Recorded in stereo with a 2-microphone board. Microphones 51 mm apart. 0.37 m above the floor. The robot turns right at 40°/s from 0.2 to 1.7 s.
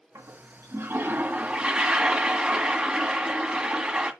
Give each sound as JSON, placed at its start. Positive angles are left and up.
{"t": 0.1, "sound": "a toilet flushing", "azimuth_deg": -80, "distance_m": 1.7}